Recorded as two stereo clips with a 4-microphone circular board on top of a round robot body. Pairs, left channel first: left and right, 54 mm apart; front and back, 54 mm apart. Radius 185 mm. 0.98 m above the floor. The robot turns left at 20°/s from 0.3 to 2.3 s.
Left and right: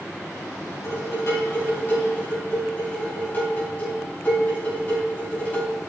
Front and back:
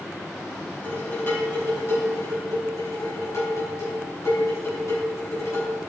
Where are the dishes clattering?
65° left, 6 m; by 5.8 s 35° left, 6 m.